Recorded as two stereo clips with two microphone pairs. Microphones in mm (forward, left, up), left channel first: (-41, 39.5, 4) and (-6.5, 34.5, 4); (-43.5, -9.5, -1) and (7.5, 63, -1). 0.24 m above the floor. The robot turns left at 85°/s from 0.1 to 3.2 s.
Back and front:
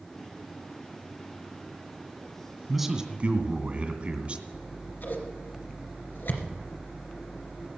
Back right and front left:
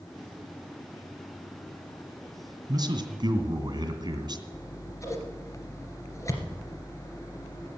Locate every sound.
2.7 s a man speaking: 80° left, 2 m; by 4.4 s 40° left, 2 m
4.5 s scissors: straight behind, 2.5 m